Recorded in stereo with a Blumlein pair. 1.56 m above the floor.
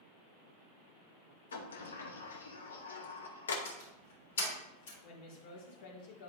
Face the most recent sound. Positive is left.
turn(degrees=50)